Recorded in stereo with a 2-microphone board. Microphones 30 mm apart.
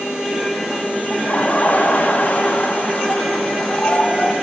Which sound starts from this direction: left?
Laughter, at 1.1 s.